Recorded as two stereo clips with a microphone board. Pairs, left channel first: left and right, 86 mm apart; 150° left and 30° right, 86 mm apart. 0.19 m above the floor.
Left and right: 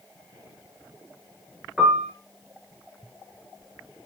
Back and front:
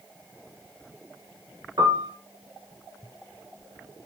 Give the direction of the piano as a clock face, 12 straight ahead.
12 o'clock.